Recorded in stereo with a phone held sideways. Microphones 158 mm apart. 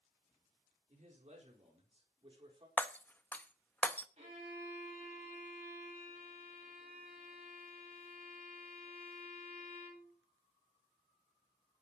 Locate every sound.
0.9 s a man speaking: 50° right (ahead or behind), 4 m; by 2.7 s 35° right (ahead or behind), 4 m
2.8 s breaking glass: 10° left (ahead or behind), 0.6 m
4.2 s a violin: 45° right (ahead or behind), 9.5 m